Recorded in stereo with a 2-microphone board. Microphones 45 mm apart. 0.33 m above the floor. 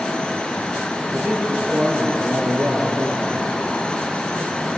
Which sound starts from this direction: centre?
A man speaking, at 1.1 s.